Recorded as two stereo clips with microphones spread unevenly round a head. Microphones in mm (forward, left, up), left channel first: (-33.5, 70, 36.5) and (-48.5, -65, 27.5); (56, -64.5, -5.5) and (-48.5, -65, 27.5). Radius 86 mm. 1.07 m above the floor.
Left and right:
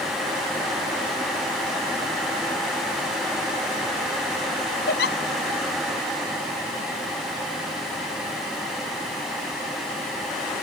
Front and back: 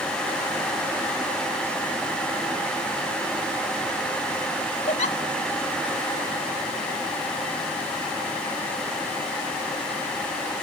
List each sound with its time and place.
4.9 s a giggle: 55° left